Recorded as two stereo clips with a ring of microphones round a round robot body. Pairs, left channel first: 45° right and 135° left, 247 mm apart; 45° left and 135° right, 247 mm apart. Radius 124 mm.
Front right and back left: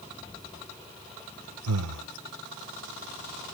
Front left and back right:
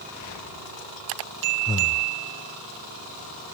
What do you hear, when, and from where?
1.7 s breathing: 120° left, 0.8 m